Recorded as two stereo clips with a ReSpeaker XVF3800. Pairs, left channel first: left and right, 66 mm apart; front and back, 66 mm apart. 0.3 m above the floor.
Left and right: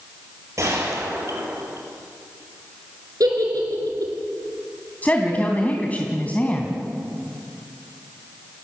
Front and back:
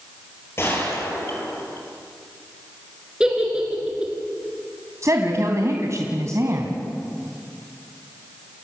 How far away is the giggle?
About 4.5 m.